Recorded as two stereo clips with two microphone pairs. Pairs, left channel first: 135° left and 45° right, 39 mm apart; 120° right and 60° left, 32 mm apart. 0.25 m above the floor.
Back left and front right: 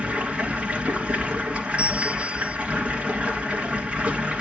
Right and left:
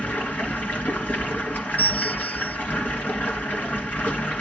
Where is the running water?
100° right, 2.5 m.